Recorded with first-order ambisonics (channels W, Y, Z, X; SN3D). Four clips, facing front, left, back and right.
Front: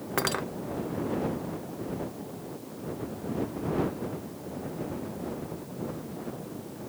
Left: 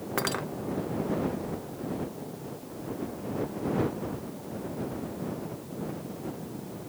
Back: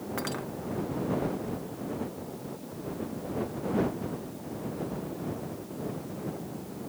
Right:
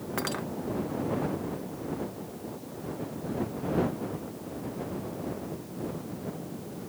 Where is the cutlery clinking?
20° left.